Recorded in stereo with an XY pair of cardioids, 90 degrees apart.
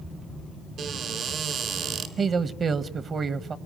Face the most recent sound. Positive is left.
turn(degrees=-50)